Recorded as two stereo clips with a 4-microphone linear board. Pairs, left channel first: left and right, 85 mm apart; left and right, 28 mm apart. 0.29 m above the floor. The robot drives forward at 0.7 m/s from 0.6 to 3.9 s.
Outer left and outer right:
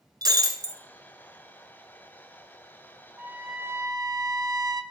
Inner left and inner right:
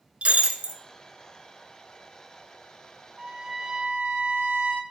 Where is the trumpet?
25° right (ahead or behind), 1.0 m; by 4.8 s 45° right (ahead or behind), 0.6 m.